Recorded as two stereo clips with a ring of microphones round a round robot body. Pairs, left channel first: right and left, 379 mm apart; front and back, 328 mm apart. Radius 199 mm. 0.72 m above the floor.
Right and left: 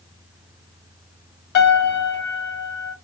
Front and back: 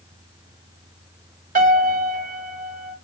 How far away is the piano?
About 1.7 m.